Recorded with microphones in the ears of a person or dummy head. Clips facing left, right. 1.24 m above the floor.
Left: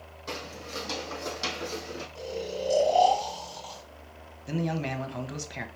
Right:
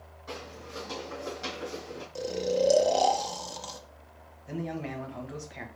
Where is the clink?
I don't hear a clink.